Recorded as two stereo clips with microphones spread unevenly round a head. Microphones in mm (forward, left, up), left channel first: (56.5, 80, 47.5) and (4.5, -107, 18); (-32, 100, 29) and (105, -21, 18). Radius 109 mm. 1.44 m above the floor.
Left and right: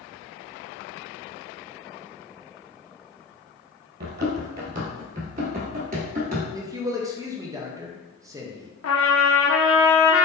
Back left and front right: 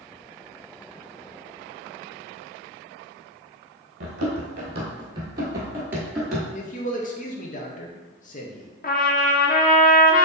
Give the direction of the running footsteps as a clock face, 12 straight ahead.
2 o'clock.